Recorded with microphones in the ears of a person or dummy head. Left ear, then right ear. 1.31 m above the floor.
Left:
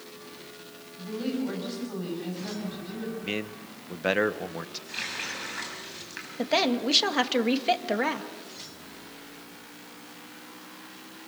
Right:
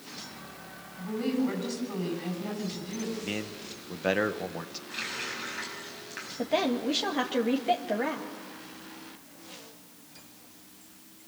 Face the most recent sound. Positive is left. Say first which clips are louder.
# left 3 dB
turn(degrees=35)  # may be behind; listen again after turning